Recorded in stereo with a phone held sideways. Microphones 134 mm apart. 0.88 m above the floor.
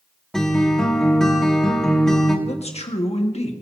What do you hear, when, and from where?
0.3 s a guitar: 5° left (ahead or behind), 1.7 m
2.5 s a man speaking: 50° left (ahead or behind), 1.5 m